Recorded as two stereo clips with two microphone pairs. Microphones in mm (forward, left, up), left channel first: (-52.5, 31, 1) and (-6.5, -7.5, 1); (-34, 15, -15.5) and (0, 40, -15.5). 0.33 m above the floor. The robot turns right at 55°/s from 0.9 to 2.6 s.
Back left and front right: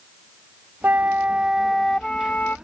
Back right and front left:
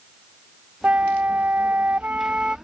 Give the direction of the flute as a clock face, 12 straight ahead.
12 o'clock.